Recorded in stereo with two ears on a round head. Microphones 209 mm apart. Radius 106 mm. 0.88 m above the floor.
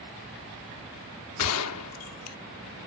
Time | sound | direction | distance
1.4 | a gunshot | 80° left | ?